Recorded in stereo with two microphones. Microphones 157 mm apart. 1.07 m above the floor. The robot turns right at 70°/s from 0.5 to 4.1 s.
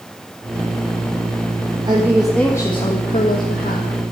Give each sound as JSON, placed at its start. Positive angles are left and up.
{"t": 1.9, "sound": "a woman speaking", "azimuth_deg": -30, "distance_m": 1.4}